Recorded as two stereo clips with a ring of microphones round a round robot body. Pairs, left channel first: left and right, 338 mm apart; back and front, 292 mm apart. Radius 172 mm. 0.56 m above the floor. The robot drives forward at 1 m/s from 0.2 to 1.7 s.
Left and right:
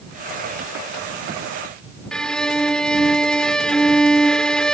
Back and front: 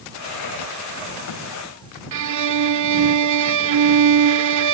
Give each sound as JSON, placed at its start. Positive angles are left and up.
{"t": 2.1, "sound": "a violin", "azimuth_deg": 0}